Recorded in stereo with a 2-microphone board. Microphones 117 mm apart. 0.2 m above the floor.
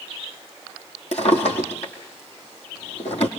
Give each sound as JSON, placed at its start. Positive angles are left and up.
{"t": 1.1, "sound": "a drawer", "side_deg": 65, "distance_m": 3.5}